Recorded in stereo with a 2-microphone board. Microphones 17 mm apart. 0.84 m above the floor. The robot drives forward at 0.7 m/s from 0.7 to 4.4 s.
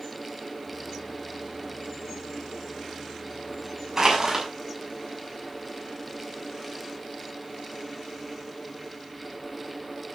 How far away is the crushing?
About 6 m.